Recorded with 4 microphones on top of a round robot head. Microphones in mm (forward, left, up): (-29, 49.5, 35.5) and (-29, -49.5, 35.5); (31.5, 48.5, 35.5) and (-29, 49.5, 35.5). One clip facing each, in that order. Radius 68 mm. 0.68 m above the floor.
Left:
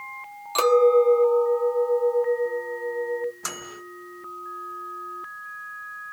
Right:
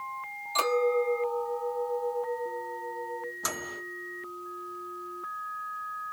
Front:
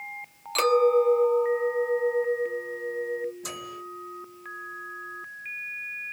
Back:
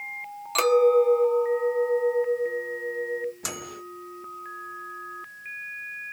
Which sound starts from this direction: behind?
A microwave, at 3.4 s.